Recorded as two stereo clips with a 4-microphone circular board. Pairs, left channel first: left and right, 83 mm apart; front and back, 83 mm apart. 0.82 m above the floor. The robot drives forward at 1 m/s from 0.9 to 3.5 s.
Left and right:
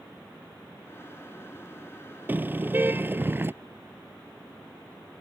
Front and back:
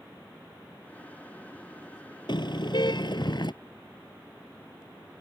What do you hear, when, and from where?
2.3 s a car horn: 25° right; by 3.5 s 30° right